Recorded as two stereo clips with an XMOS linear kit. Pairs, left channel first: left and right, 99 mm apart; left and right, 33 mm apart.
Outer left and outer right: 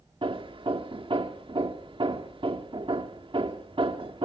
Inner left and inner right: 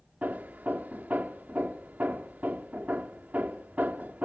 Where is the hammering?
55° right (ahead or behind), 0.8 m.